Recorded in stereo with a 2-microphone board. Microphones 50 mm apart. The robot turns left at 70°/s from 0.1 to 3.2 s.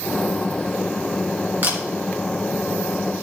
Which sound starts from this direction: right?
A camera shutter, at 1.6 s.